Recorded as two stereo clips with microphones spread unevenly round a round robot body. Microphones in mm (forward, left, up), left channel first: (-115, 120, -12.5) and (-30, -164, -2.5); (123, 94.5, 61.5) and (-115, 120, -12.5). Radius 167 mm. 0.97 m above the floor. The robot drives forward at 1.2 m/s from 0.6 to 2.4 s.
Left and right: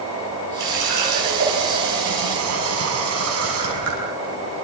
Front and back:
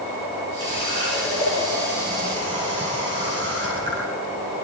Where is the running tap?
90° right, 6 m; by 4.0 s 110° right, 6 m.